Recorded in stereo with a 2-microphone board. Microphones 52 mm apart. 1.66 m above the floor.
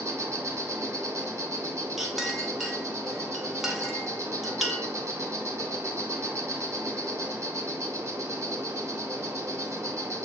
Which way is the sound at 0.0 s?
80° right.